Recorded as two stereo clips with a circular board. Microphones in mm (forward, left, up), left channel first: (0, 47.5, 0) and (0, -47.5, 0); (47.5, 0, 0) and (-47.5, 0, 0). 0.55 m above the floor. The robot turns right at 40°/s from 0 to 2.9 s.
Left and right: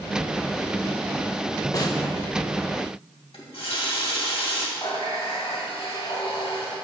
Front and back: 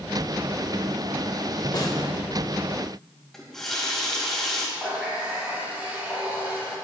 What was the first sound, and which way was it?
A snare drum, 40° left.